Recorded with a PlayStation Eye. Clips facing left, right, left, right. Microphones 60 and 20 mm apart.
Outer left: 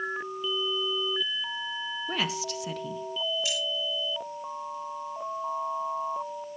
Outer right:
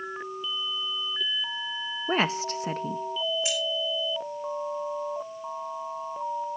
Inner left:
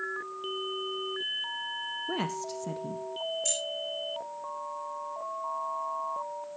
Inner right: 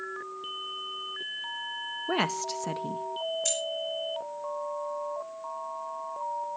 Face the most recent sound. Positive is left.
turn(degrees=-20)  # may be behind; listen again after turning